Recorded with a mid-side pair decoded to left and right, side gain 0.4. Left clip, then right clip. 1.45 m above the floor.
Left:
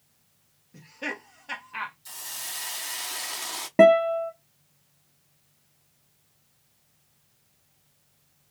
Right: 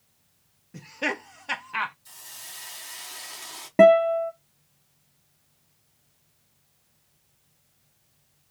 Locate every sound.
0.7 s laughter: 55° right, 0.6 m
2.0 s a hiss: 50° left, 0.6 m
3.8 s a guitar: straight ahead, 0.9 m